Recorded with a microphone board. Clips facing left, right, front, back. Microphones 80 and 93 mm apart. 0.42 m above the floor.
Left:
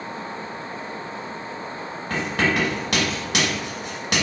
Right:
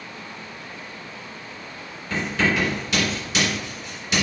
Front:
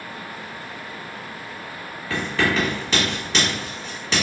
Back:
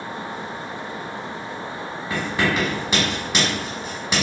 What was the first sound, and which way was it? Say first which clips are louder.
Writing: even, front 1 dB; 105° left.